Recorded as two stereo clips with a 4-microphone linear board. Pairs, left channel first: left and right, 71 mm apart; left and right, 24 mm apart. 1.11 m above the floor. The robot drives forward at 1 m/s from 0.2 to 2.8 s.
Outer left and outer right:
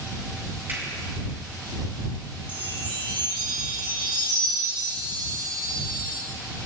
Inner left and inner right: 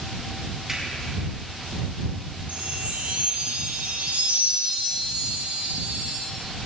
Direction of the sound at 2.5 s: 85° right.